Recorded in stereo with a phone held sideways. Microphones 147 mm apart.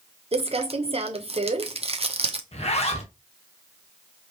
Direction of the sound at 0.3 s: 45° right (ahead or behind).